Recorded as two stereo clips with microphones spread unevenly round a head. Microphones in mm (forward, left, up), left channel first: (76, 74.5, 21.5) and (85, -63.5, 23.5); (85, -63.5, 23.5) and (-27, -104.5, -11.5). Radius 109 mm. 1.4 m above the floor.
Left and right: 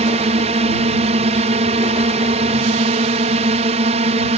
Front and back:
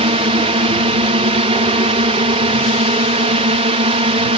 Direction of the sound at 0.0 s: 135° right.